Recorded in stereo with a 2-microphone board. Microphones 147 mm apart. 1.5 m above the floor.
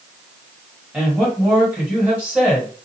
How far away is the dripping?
No dripping in this recording.